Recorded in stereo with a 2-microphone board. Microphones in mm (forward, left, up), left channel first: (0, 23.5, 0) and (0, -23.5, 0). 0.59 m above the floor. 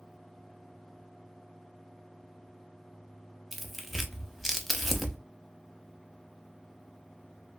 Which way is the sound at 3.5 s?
5° left (ahead or behind).